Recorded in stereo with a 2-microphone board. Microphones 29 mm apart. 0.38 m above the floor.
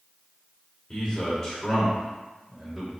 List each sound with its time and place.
0.9 s a man speaking: 25° left (ahead or behind), 1.6 m; by 2.9 s 15° right (ahead or behind), 1.9 m